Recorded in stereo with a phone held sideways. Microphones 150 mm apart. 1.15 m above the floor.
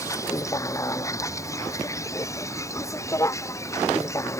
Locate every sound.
0.0 s a vehicle: 20° left (ahead or behind)